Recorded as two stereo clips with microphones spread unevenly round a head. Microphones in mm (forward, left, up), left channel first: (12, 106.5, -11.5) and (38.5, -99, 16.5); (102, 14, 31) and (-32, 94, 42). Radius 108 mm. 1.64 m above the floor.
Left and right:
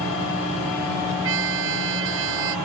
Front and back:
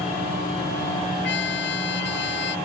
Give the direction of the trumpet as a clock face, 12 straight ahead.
2 o'clock.